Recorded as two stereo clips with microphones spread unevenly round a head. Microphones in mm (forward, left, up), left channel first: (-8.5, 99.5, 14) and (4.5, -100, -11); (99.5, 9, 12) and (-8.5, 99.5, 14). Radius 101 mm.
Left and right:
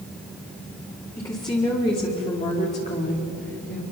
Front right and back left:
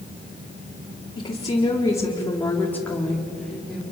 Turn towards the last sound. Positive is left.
turn(degrees=50)